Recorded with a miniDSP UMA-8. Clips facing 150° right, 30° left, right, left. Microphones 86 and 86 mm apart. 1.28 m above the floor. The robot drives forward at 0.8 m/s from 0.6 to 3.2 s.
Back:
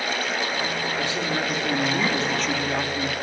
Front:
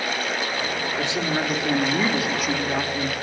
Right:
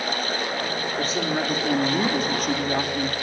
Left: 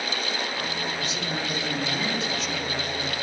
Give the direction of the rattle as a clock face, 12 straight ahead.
No rattle in this recording.